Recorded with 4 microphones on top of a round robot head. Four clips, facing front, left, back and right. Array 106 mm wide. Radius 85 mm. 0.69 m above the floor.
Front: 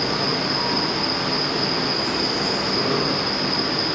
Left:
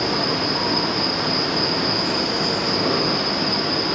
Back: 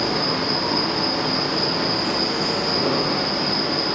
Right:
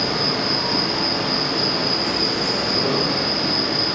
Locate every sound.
0.0 s an insect: 115° left, 0.8 m